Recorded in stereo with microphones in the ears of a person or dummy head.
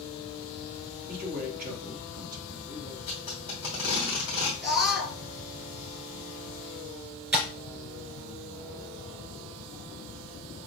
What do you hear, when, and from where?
1.1 s a man speaking: 50° right (ahead or behind), 1.7 m
3.1 s tape being pulled: 20° right (ahead or behind), 1.2 m
4.6 s a scream: 5° right (ahead or behind), 2 m
7.3 s tapping: 10° right (ahead or behind), 3 m